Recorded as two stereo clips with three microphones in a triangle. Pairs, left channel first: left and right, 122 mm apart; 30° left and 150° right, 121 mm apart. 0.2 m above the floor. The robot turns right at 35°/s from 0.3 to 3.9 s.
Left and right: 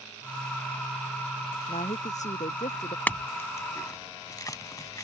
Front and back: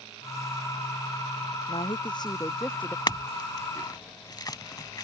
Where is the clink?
25° left; by 5.0 s 55° left.